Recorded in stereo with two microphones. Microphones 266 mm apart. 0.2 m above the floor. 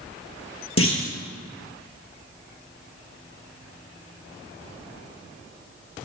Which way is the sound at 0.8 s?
60° left (ahead or behind).